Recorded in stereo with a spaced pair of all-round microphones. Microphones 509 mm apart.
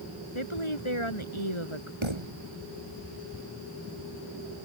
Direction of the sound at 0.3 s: 70° left (ahead or behind).